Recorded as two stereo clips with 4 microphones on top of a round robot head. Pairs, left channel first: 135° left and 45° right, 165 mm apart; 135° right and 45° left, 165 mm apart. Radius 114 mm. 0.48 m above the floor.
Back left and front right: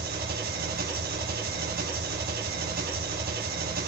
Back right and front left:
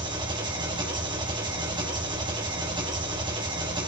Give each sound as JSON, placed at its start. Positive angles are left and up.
{"t": 0.0, "sound": "an engine running", "azimuth_deg": -20, "distance_m": 2.0}